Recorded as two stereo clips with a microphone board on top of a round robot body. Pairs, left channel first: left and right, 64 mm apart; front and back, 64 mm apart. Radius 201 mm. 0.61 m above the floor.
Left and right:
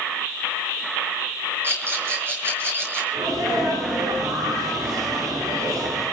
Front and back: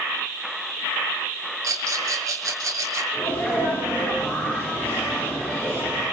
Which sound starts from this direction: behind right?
A rattle, at 1.6 s.